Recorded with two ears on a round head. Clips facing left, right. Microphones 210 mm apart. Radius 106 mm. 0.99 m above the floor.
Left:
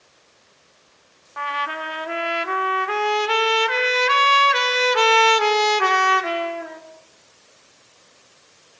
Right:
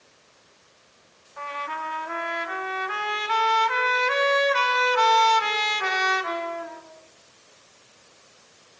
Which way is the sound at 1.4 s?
75° left (ahead or behind).